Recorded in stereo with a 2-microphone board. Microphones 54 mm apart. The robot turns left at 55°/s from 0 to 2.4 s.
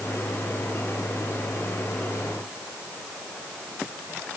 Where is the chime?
No chime in this recording.